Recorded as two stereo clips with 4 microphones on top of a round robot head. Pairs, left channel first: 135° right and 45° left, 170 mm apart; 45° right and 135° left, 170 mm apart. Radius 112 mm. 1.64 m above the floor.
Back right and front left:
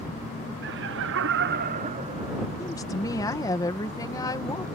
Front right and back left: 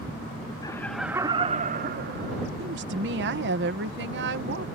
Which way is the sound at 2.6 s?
155° left.